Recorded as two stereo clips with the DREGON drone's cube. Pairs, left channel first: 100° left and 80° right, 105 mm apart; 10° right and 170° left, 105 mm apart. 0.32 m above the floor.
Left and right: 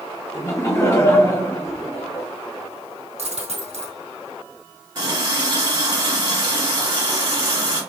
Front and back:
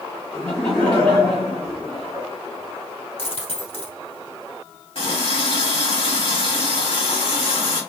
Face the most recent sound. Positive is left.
turn(degrees=-40)